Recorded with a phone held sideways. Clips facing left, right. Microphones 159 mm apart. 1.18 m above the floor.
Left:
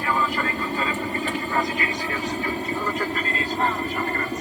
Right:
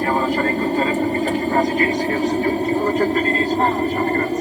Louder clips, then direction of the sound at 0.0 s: Right 6 dB; 40° right (ahead or behind).